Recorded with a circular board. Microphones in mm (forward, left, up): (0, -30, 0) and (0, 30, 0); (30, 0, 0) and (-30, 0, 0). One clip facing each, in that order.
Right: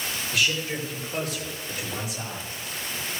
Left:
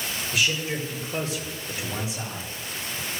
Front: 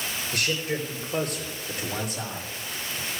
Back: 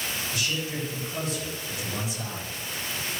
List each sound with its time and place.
0.3 s a man speaking: 15° left, 5 m; by 2.5 s 25° left, 6 m